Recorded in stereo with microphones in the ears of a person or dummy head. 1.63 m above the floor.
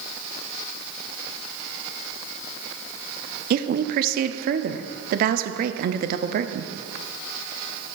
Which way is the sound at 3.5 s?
50° right (ahead or behind).